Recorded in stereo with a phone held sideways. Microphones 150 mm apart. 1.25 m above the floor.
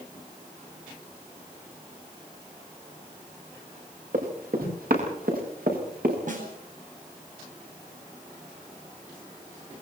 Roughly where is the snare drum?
Right.